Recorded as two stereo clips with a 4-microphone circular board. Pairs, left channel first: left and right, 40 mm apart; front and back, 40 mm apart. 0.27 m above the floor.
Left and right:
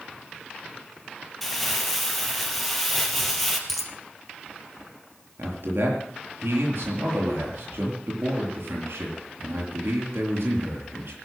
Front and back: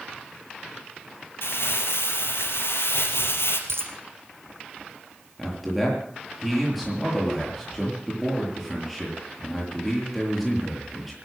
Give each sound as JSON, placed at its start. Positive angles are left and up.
{"t": 1.4, "sound": "crumpling", "azimuth_deg": 5, "distance_m": 3.0}
{"t": 3.7, "sound": "a dropped coin", "azimuth_deg": 180, "distance_m": 2.5}
{"t": 5.4, "sound": "a man speaking", "azimuth_deg": -95, "distance_m": 6.5}